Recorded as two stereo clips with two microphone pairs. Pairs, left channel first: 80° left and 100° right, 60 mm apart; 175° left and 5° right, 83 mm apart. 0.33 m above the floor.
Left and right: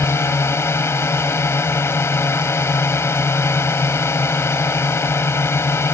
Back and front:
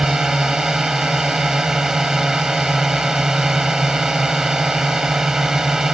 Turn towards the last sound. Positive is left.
turn(degrees=80)